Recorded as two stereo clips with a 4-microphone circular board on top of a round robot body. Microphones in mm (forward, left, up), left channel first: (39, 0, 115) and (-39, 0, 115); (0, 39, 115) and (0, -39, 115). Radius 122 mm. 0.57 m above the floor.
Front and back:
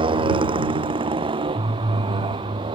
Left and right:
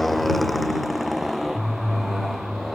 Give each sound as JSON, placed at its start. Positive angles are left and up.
{"t": 0.0, "sound": "a motorcycle", "azimuth_deg": 175}